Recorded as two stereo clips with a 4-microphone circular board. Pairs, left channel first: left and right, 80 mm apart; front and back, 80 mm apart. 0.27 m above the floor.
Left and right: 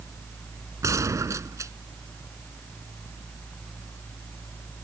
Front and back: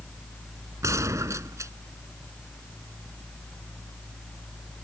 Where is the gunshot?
135° right.